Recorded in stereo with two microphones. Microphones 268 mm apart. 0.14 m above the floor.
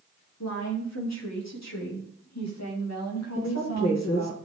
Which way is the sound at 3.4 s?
80° left.